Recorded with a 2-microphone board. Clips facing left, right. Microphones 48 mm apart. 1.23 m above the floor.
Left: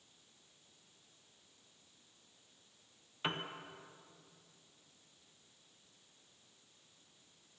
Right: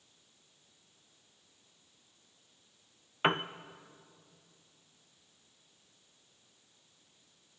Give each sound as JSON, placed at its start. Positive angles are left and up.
{"t": 3.2, "sound": "a piano", "side_deg": -45, "distance_m": 0.6}